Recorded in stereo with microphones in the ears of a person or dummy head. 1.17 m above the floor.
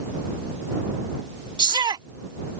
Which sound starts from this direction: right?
A shout, at 1.6 s.